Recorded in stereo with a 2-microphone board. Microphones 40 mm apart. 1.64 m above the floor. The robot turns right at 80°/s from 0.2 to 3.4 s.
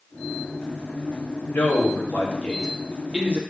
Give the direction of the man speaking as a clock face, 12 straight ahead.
10 o'clock.